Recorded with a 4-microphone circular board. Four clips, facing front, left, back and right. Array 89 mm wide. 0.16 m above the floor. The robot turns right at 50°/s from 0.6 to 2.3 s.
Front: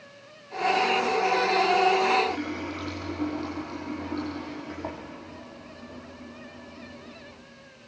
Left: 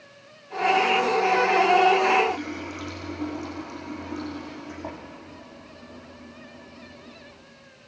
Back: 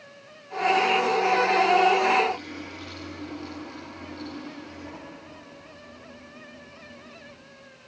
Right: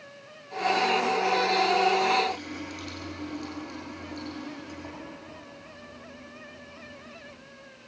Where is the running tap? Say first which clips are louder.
Left 4 dB, front 1 dB; 25° left, 5.5 m.